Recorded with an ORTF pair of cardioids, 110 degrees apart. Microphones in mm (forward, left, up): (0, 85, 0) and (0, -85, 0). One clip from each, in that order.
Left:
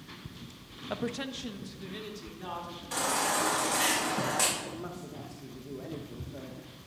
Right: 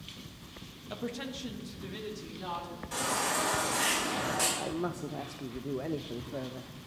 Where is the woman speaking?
35° left, 0.5 m; by 2.8 s straight ahead, 2.5 m.